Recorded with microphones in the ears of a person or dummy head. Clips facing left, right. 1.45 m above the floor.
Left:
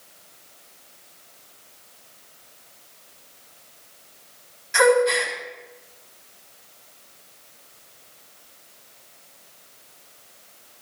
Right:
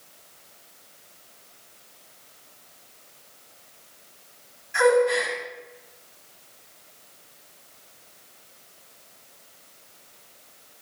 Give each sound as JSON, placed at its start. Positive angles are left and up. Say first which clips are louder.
{"t": 4.7, "sound": "a gasp", "louder": "left 1 dB", "side_deg": 80, "distance_m": 6.0}